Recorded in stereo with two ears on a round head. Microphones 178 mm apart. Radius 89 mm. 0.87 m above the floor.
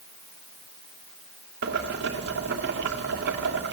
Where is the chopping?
I don't hear chopping.